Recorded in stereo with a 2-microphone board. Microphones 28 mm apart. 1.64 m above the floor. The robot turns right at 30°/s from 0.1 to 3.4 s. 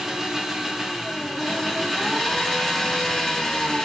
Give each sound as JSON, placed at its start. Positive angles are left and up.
{"t": 0.0, "sound": "an engine running", "side_deg": -10, "distance_m": 1.1}